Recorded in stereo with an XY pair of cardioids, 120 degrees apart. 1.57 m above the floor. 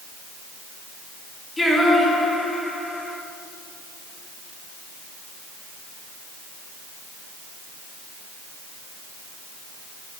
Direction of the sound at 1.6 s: 10° left.